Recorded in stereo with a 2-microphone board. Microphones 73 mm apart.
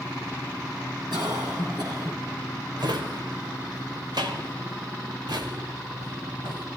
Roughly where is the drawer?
Right.